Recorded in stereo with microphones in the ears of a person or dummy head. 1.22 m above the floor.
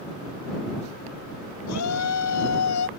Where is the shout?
80° left.